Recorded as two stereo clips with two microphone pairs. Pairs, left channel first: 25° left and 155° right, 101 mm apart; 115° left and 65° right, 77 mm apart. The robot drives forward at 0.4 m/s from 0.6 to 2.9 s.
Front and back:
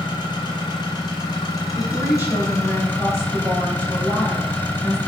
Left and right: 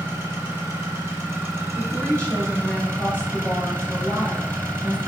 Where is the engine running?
10° right, 1.5 m; by 5.1 s 30° right, 0.8 m.